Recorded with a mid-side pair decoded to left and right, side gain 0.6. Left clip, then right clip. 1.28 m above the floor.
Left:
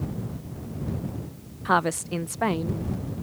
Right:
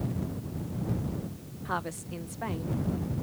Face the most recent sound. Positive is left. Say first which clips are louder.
# left 11 dB
turn(degrees=50)